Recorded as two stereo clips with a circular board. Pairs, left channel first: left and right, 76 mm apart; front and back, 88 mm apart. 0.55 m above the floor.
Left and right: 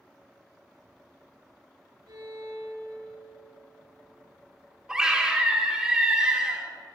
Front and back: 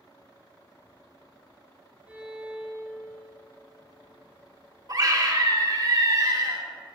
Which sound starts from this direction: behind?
A scream, at 4.9 s.